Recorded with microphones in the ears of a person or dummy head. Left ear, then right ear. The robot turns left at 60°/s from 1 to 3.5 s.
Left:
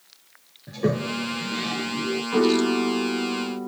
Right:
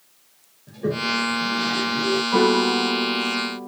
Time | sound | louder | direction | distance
0.7 | a toilet flushing | right 2 dB | 45° left (ahead or behind) | 0.5 m
2.3 | a piano | right 1 dB | 160° right | 1.4 m